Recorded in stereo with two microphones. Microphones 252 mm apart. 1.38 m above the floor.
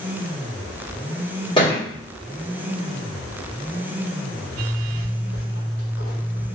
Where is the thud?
20° left (ahead or behind), 1.4 m.